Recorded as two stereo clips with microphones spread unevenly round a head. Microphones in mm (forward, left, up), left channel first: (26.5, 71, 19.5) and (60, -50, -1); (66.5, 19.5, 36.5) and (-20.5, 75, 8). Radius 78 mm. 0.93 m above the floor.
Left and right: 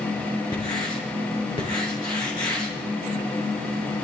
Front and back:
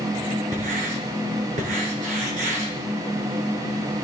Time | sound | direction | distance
0.5 | writing | 170° left | 4.5 m